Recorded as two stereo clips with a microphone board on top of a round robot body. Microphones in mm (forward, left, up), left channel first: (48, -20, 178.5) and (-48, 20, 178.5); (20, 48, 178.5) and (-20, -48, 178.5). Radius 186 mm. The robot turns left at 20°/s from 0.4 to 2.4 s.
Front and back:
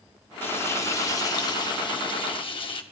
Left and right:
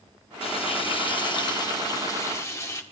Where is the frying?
45° left, 1.8 m; by 2.8 s 5° left, 1.8 m.